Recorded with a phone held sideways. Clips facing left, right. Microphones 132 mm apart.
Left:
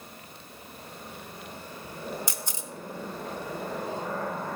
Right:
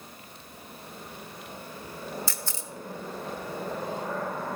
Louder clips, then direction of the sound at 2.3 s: Even; 20° left (ahead or behind).